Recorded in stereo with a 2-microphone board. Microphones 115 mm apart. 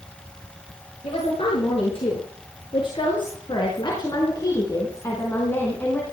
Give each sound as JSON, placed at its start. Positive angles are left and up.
{"t": 1.0, "sound": "a woman speaking", "side_deg": 60, "distance_m": 7.0}